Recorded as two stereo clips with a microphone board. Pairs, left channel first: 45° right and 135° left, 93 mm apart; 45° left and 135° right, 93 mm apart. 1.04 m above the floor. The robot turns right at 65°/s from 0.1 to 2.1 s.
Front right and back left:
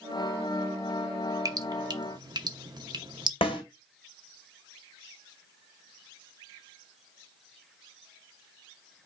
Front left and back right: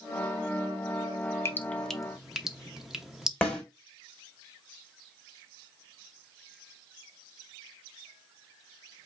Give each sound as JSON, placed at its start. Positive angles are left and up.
{"t": 1.4, "sound": "dripping", "azimuth_deg": 100, "distance_m": 0.7}
{"t": 3.4, "sound": "a snare drum", "azimuth_deg": -30, "distance_m": 2.0}